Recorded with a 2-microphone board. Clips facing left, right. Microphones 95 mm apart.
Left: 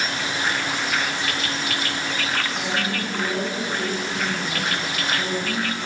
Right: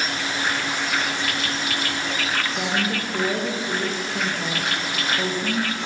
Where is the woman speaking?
40° right (ahead or behind), 9 m.